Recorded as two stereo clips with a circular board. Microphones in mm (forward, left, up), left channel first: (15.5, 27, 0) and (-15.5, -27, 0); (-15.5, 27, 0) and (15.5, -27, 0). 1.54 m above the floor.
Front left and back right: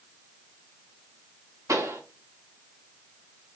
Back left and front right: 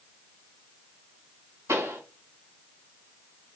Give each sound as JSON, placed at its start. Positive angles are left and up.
{"t": 1.7, "sound": "a pop", "azimuth_deg": -95, "distance_m": 3.5}